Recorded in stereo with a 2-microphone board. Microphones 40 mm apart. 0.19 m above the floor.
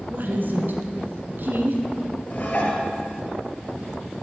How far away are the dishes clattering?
About 2 m.